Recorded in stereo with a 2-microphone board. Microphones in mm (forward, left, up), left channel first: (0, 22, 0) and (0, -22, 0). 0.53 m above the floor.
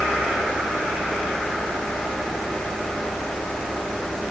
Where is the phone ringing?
No phone ringing in this recording.